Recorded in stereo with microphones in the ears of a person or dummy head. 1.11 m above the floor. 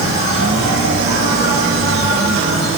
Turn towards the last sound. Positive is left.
turn(degrees=-75)  # may be behind; listen again after turning